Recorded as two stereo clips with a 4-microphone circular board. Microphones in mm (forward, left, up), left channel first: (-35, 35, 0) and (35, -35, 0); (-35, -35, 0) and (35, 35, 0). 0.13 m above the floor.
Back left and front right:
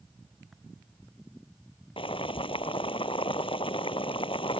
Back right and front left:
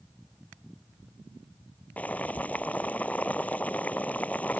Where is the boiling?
150° left.